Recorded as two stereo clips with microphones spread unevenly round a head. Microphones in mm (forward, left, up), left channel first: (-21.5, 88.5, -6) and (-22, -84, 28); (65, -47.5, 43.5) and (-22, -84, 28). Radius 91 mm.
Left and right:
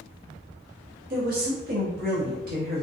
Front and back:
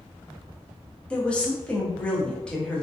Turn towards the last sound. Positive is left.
turn(degrees=-55)